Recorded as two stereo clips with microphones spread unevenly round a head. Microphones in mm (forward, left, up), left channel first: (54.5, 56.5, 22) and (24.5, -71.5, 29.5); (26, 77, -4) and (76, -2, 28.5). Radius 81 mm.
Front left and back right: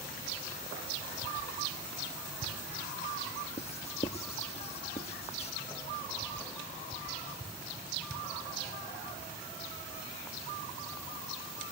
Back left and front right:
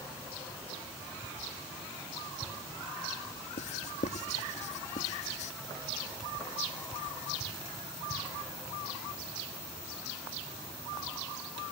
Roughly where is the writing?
Behind left.